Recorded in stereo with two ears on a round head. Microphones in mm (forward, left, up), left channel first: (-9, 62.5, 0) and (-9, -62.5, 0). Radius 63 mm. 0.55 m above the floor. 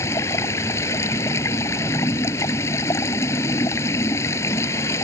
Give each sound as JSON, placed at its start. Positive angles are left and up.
{"t": 0.0, "sound": "running water", "side_deg": 20}